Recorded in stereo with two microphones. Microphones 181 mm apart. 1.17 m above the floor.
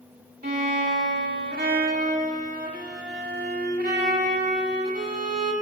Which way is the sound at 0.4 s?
60° right (ahead or behind).